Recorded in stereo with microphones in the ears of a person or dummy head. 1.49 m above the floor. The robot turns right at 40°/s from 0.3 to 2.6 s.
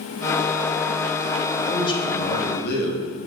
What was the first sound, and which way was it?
A man speaking, 15° left.